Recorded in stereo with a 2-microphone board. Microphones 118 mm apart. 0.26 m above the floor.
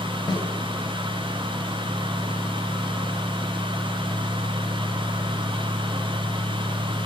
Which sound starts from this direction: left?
A snare drum, at 0.3 s.